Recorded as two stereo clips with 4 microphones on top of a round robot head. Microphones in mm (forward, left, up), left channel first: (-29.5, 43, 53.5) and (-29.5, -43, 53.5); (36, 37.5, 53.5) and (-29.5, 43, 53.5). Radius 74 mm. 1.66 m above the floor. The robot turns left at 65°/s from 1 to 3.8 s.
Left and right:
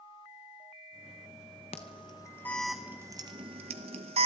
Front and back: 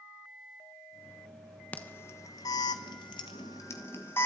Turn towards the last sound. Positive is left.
turn(degrees=-75)